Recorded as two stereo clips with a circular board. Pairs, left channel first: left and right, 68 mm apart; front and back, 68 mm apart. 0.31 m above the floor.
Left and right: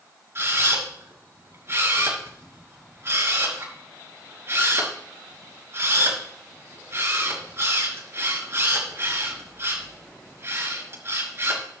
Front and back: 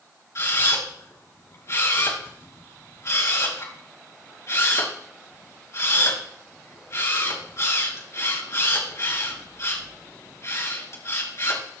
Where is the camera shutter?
40° right, 4.5 m.